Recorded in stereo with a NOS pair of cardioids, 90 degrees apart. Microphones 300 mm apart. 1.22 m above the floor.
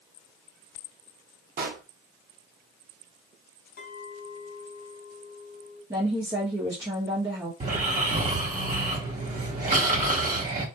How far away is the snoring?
About 1.3 m.